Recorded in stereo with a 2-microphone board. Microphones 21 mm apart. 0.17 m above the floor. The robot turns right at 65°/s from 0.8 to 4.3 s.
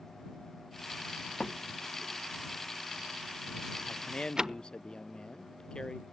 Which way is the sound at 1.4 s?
35° left (ahead or behind).